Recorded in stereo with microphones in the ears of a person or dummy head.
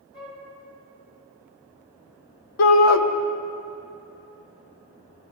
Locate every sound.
0.1 s a flute: 70° left (ahead or behind), 2.5 m
2.6 s a shout: 75° left (ahead or behind), 0.8 m